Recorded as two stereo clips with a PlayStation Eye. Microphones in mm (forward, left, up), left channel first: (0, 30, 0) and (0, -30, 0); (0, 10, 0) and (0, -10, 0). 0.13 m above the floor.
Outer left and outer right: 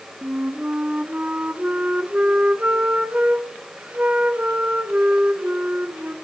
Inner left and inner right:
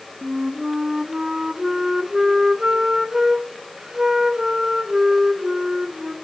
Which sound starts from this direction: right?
A flute, at 0.2 s.